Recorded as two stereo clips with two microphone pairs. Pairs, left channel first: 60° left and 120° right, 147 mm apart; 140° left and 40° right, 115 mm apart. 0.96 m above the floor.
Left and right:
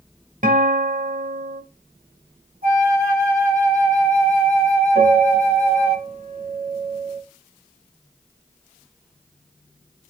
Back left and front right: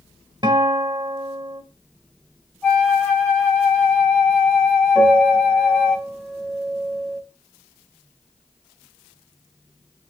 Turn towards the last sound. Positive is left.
turn(degrees=-135)